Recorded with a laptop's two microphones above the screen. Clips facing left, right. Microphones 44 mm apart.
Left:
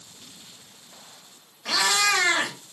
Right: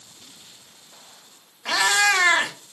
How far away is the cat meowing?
About 0.7 m.